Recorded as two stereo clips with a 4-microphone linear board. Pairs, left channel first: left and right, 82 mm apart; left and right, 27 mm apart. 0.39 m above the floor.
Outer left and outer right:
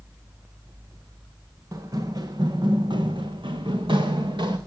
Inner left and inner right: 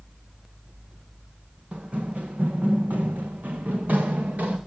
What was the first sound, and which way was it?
Running footsteps, 40° right (ahead or behind).